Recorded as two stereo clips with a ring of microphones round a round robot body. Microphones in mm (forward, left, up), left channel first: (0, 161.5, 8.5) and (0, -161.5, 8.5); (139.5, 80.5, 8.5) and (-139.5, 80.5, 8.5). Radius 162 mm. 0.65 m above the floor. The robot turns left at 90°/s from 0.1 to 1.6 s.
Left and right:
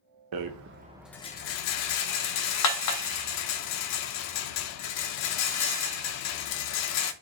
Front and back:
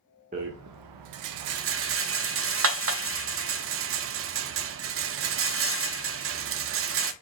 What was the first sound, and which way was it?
A rattle, 110° right.